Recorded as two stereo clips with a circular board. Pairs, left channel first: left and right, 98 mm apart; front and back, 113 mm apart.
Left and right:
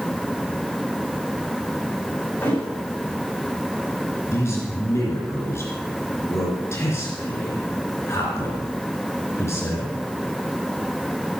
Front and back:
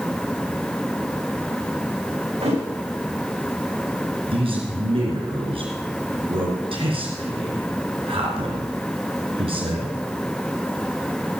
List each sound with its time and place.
2.4 s a thud: 160° left, 8 m
4.3 s a man speaking: 150° left, 3.5 m